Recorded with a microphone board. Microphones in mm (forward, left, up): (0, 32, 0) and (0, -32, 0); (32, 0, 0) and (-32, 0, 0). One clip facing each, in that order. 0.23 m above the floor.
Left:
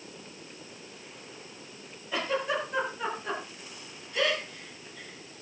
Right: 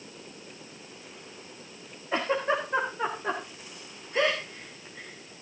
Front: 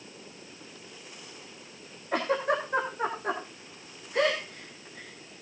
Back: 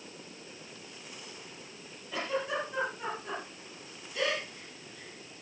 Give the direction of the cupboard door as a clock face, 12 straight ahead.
No cupboard door in this recording.